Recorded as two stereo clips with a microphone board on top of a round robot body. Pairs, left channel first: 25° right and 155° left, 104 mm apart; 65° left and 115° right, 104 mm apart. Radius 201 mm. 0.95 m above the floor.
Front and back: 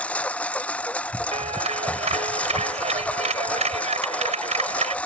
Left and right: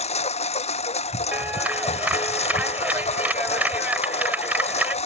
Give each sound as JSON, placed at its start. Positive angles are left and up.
{"t": 0.0, "sound": "a lawn mower", "azimuth_deg": 55}
{"t": 1.3, "sound": "a clap", "azimuth_deg": 170}